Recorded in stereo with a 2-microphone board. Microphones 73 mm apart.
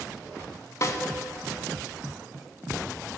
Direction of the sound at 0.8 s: 45° left (ahead or behind).